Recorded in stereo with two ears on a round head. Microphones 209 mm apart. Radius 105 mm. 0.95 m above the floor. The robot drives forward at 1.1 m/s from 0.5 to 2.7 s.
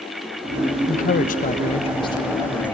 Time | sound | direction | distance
0.9 | a man speaking | 30° left (ahead or behind) | 0.8 m